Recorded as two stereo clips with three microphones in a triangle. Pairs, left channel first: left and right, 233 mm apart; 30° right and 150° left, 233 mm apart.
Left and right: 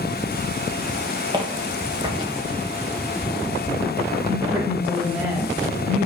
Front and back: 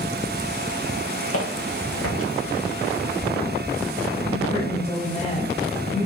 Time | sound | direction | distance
1.3 | footsteps | 20° right | 1.7 m
4.3 | a woman speaking | 15° right | 1.4 m